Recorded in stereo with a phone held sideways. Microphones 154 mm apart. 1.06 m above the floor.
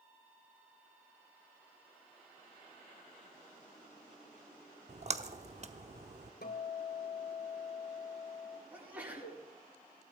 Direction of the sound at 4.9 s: 45° right (ahead or behind).